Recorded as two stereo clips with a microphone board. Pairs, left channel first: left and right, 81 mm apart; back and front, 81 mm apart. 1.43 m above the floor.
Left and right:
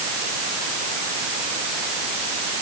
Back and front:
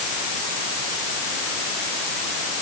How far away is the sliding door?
No sliding door in this recording.